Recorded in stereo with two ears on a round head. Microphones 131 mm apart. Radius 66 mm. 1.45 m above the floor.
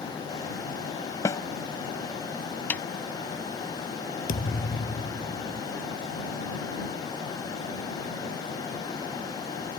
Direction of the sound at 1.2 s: 25° left (ahead or behind).